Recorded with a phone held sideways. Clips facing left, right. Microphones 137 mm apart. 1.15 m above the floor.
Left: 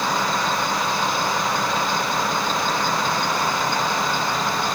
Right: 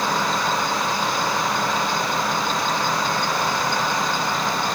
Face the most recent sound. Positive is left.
No sound to turn to.